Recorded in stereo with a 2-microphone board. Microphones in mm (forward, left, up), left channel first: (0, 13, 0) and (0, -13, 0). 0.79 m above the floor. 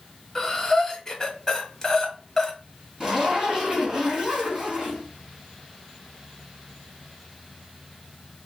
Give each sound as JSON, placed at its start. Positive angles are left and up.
{"t": 0.3, "sound": "breathing", "side_deg": 20, "distance_m": 1.0}
{"t": 3.0, "sound": "a zipper", "side_deg": -25, "distance_m": 1.8}